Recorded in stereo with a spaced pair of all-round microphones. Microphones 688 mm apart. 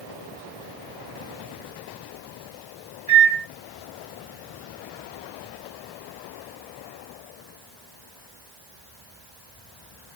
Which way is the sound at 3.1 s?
20° right (ahead or behind).